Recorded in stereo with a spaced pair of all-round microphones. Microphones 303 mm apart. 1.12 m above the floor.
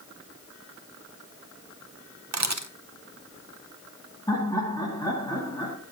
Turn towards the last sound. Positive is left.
turn(degrees=10)  # may be behind; listen again after turning